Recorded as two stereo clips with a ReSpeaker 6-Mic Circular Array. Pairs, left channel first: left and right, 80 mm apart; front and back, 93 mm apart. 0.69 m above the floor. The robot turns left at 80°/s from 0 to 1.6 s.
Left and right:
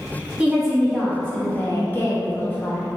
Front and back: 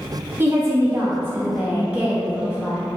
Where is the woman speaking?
150° right, 1.2 m; by 2.9 s 115° left, 1.2 m.